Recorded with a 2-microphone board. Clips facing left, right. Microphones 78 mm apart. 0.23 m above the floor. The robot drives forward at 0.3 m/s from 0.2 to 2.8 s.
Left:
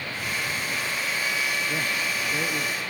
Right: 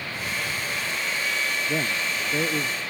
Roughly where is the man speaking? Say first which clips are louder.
Right 1 dB; right.